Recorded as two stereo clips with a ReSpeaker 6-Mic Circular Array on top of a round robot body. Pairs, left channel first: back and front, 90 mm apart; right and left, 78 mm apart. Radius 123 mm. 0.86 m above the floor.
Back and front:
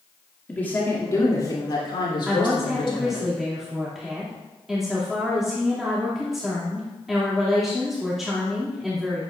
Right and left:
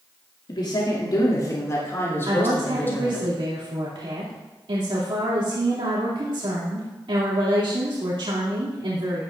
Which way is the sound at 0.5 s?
105° right.